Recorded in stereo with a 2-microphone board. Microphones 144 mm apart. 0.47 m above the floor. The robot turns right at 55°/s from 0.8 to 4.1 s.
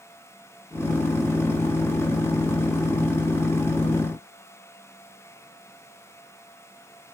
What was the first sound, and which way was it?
Only background noise.